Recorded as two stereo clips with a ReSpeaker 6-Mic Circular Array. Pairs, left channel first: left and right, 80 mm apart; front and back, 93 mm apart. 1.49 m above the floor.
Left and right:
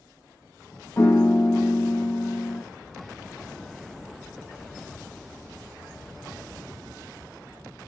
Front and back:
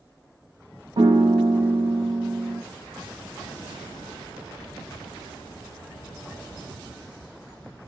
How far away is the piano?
About 0.7 m.